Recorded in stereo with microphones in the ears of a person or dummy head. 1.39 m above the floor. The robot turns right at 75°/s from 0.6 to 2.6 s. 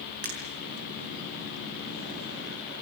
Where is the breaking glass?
45° right (ahead or behind), 6 m.